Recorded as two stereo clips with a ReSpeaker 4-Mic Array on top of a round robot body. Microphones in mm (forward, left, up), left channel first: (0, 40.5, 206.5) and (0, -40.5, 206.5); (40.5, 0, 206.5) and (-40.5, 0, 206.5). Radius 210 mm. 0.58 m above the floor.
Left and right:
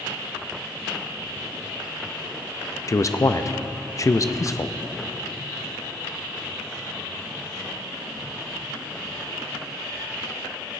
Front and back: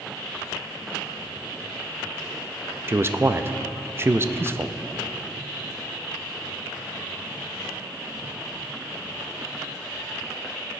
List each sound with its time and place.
2.9 s a man speaking: 130° left, 0.7 m